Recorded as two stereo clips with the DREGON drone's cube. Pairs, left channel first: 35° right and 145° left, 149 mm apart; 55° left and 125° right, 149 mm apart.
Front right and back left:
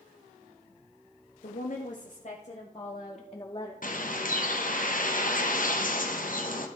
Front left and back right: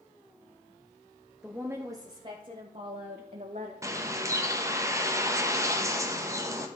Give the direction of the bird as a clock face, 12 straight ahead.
2 o'clock.